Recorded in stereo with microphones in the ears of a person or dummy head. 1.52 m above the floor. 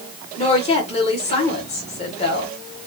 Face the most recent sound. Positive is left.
turn(degrees=35)  # may be behind; listen again after turning